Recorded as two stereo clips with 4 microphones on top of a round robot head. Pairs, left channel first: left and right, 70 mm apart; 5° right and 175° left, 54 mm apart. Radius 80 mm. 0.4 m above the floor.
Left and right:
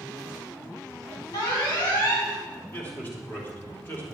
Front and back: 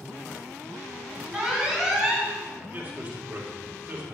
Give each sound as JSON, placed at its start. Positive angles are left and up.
{"t": 1.3, "sound": "an alarm", "azimuth_deg": 100, "distance_m": 3.5}
{"t": 2.7, "sound": "a man speaking", "azimuth_deg": 140, "distance_m": 1.9}